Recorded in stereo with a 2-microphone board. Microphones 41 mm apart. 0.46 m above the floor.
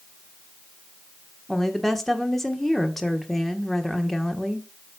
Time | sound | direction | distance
1.5 | a woman speaking | 5° left (ahead or behind) | 1.2 m